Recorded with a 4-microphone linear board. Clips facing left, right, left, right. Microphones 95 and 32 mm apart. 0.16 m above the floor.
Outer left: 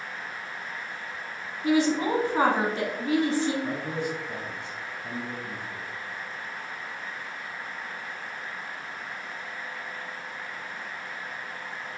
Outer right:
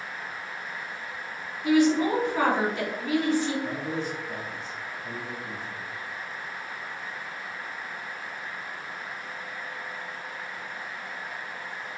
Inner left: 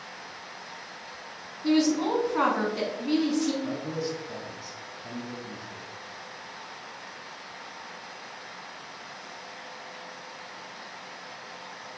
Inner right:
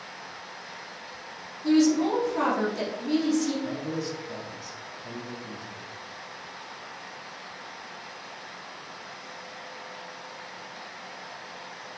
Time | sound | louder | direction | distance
1.6 | a woman speaking | outer right 2 dB, inner right 2 dB | 35° left (ahead or behind) | 1.3 m
3.6 | a man speaking | even, even | 20° left (ahead or behind) | 1.0 m